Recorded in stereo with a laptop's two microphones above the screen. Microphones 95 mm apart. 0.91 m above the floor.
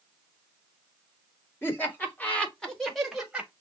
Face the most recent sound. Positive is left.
turn(degrees=-10)  # may be behind; listen again after turning